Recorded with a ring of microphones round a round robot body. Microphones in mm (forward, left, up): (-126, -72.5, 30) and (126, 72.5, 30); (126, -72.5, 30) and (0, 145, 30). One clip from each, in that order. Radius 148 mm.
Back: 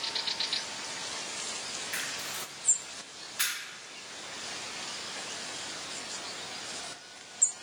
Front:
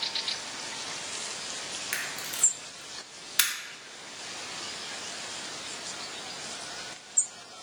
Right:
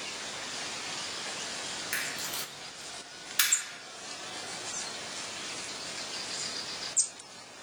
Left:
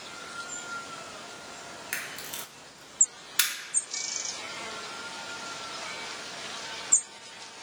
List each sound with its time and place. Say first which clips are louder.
1.9 s a camera shutter: front 2 dB, even; 50° left, 0.9 m